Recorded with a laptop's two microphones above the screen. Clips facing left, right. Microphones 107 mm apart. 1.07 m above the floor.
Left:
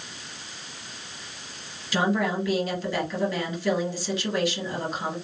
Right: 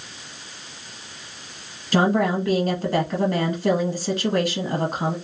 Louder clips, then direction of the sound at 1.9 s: Right 5 dB; 45° right (ahead or behind).